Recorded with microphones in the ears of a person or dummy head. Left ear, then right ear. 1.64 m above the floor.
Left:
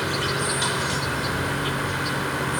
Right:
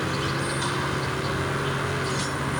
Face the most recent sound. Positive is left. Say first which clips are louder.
# left 3 dB
turn(degrees=20)  # may be behind; listen again after turning